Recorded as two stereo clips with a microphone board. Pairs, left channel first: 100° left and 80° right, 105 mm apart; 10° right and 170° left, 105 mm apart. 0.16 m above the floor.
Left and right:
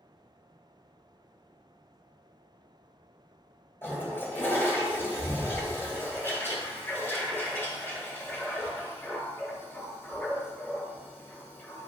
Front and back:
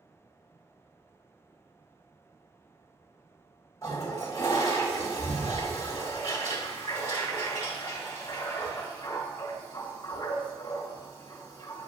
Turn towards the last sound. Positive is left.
turn(degrees=40)